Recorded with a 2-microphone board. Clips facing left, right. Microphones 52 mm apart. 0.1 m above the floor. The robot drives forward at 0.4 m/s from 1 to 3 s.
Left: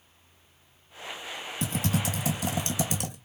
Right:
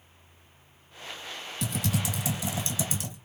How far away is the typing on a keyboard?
About 0.9 m.